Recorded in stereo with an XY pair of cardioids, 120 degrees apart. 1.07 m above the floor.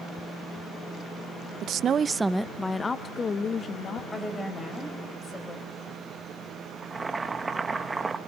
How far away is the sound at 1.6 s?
About 0.6 m.